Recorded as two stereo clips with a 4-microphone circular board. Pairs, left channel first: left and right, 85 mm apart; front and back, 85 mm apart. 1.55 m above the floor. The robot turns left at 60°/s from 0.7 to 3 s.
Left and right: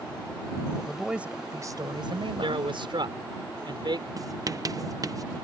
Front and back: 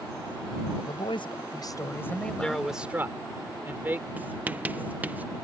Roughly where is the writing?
Behind right.